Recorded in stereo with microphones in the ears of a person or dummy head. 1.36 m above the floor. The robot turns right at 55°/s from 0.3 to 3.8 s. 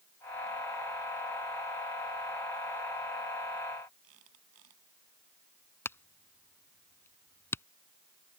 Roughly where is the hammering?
Centre.